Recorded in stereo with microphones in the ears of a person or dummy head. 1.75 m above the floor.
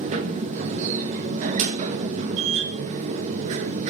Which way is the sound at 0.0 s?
45° right (ahead or behind).